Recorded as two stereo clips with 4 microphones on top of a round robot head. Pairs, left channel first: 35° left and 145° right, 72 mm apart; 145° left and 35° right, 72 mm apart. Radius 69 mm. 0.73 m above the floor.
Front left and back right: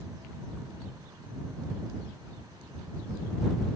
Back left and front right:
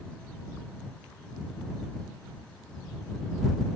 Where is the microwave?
I don't hear a microwave.